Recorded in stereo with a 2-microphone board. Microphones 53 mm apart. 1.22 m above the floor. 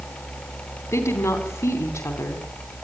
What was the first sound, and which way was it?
A woman speaking, 75° left (ahead or behind).